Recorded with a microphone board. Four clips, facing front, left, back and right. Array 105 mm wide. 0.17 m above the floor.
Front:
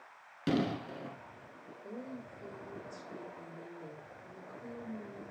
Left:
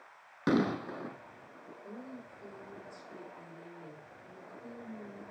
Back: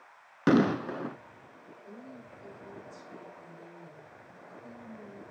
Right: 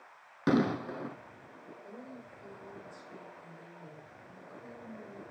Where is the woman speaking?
25° left, 4.5 m.